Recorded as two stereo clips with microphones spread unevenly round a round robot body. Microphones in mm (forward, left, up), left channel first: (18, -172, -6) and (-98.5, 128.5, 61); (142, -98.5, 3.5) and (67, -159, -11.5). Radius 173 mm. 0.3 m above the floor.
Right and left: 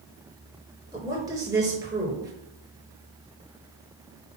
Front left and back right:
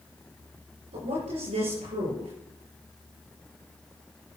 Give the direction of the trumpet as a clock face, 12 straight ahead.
No trumpet in this recording.